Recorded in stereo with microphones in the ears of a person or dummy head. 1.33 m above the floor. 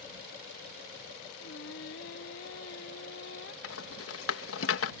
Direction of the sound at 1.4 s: 75° left (ahead or behind).